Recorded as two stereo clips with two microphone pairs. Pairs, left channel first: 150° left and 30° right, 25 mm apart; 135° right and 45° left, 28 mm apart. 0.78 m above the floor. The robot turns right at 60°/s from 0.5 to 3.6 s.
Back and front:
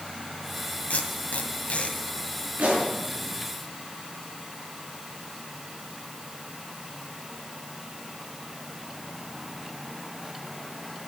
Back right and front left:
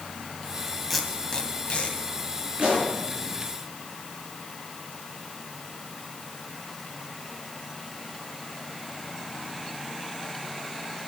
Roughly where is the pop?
Ahead.